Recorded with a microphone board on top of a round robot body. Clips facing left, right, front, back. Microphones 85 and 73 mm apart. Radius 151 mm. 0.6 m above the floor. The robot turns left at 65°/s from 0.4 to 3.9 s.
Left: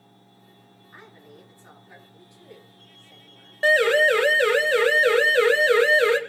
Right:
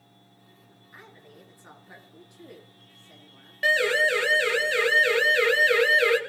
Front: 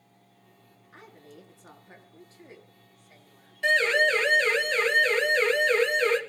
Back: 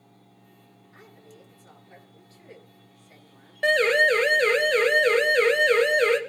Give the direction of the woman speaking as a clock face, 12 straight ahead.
11 o'clock.